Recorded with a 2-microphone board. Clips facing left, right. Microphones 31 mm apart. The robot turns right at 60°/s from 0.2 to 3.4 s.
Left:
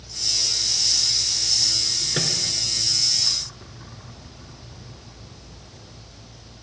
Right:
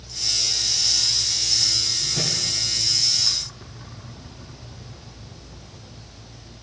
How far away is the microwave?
About 2.5 m.